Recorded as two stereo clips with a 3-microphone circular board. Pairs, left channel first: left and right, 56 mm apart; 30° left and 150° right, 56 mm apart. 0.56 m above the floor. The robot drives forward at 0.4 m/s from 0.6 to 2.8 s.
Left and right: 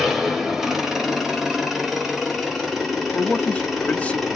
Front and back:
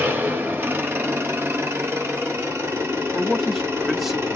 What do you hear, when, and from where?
0.0 s an engine running: 170° right, 1.0 m; by 4.4 s 175° right, 1.7 m
3.1 s a man speaking: 125° left, 0.7 m